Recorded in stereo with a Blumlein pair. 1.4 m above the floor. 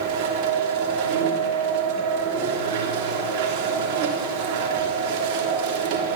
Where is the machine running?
45° right, 3 m.